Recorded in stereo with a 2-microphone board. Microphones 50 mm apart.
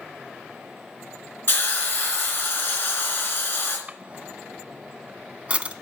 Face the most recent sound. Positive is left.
turn(degrees=-25)  # may be behind; listen again after turning